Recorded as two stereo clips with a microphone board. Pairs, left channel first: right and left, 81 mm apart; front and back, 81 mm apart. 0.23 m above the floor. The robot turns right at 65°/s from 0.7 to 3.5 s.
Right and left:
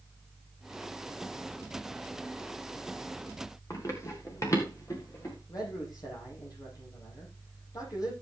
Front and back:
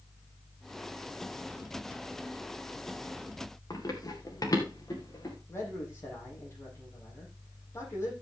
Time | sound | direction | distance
3.7 | running footsteps | 40° right | 4 m
5.5 | a man speaking | 55° right | 7.5 m